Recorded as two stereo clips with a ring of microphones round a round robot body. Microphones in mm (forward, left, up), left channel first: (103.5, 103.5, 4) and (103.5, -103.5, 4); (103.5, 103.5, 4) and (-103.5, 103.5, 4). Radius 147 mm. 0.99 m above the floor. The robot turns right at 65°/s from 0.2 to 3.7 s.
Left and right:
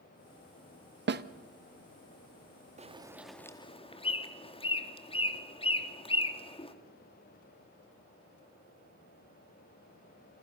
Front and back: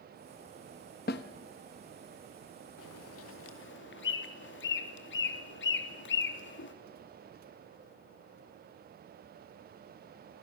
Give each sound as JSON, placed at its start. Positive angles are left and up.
{"t": 1.1, "sound": "a snare drum", "azimuth_deg": -60, "distance_m": 1.0}
{"t": 2.8, "sound": "a bird", "azimuth_deg": -35, "distance_m": 2.5}